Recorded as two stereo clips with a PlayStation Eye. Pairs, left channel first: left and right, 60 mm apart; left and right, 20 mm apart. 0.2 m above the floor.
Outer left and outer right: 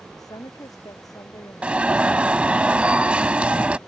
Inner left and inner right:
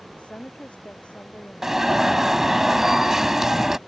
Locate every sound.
0.2 s a woman speaking: 75° left (ahead or behind); by 2.6 s 65° left (ahead or behind)
1.6 s an alarm: 20° right (ahead or behind)